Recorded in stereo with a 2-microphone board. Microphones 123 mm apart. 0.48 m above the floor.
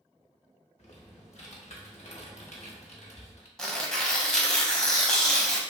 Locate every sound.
0.8 s typing on a keyboard: 65° left (ahead or behind), 0.6 m
3.6 s tearing paper: 5° left (ahead or behind), 0.6 m